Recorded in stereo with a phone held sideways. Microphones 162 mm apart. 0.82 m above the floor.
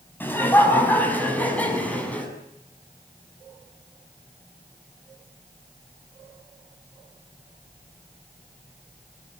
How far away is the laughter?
About 6.5 m.